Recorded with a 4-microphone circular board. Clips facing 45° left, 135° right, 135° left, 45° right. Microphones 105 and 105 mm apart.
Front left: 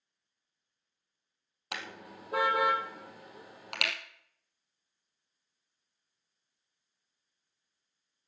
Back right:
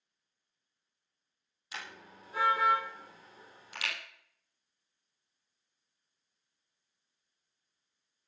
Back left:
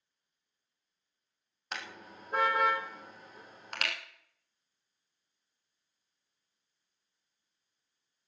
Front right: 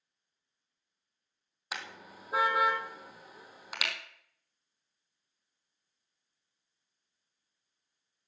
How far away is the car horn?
About 2.5 m.